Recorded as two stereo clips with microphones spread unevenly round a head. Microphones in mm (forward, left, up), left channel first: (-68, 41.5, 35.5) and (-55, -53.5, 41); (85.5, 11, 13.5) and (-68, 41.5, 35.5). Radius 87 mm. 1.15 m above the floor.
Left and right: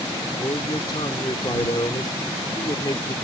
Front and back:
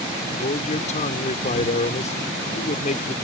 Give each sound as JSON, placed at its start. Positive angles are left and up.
{"t": 0.4, "sound": "a man speaking", "azimuth_deg": 35}